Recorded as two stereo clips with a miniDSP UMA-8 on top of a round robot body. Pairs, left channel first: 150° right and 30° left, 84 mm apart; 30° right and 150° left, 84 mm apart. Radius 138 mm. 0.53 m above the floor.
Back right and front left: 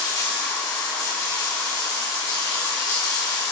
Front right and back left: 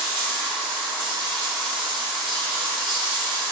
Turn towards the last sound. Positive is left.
turn(degrees=165)